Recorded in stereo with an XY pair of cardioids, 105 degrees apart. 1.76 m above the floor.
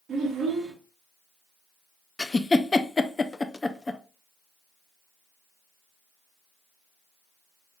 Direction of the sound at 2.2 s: 20° left.